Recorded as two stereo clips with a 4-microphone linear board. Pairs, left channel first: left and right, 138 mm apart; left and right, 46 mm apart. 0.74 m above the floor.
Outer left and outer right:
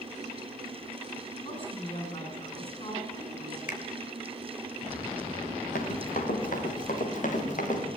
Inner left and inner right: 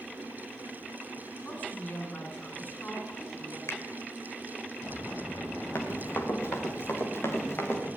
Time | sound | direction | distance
1.4 | a woman speaking | 40° left (ahead or behind) | 7.5 m
3.7 | a finger snap | 75° left (ahead or behind) | 3 m
5.8 | running footsteps | 80° left | 4.5 m